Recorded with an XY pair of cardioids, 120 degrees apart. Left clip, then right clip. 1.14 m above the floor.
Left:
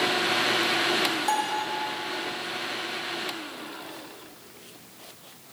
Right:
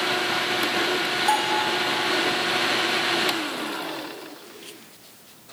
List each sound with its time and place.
1.3 s a bell: straight ahead, 7.5 m